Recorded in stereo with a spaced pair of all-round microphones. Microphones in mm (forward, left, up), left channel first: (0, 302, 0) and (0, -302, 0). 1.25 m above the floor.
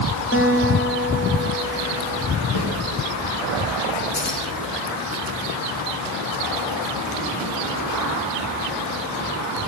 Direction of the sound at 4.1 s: 25° left (ahead or behind).